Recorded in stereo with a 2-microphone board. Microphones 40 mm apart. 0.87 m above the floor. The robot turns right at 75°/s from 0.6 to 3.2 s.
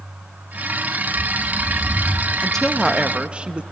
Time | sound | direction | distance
1.1 | a bird | 45° right | 0.9 m
2.4 | a woman speaking | 155° left | 0.8 m